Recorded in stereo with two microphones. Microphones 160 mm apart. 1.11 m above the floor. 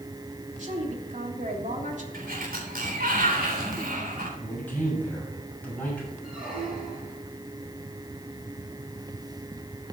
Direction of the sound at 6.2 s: 5° right (ahead or behind).